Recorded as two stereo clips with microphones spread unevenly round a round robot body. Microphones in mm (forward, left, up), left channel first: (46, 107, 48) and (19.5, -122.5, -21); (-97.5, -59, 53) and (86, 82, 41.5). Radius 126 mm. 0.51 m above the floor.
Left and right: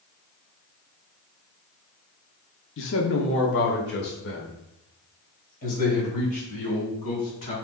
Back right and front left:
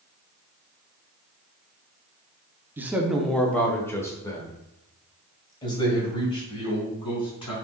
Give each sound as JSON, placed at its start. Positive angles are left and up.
{"t": 2.8, "sound": "a man speaking", "azimuth_deg": 110, "distance_m": 0.9}